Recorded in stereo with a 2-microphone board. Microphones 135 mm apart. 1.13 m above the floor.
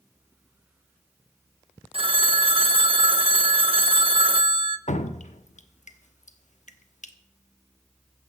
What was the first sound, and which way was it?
A phone ringing, 45° right (ahead or behind).